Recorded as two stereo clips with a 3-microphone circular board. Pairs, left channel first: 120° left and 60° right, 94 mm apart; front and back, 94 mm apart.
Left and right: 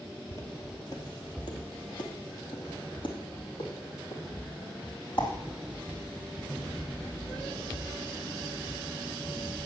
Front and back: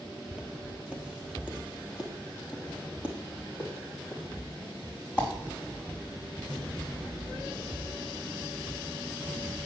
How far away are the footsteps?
About 1.7 m.